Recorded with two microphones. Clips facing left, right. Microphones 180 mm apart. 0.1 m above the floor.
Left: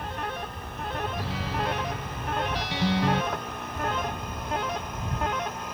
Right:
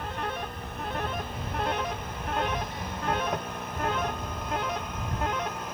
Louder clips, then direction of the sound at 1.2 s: Left 2 dB; 85° left.